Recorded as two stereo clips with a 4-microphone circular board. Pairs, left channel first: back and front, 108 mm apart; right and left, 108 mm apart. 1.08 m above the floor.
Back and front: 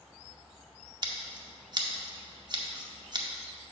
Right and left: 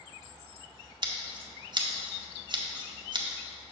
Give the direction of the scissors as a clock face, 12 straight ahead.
10 o'clock.